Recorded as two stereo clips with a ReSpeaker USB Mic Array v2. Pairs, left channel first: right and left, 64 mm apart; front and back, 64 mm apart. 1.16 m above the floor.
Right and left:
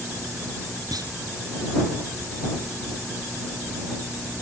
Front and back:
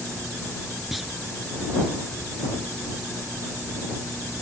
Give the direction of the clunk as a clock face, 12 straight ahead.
9 o'clock.